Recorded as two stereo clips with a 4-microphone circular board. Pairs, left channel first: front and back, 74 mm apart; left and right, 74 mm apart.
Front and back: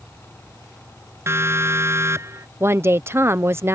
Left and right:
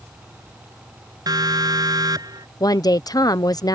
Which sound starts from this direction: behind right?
A siren, at 1.3 s.